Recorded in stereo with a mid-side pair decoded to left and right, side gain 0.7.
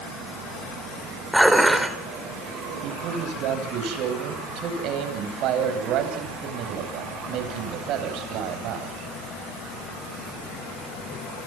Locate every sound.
1.3 s dishes clattering: 5° right, 4 m
2.8 s a man speaking: 55° right, 10 m